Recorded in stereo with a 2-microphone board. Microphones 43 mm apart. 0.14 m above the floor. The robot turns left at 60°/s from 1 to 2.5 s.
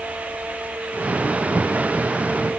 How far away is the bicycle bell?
I don't hear a bicycle bell.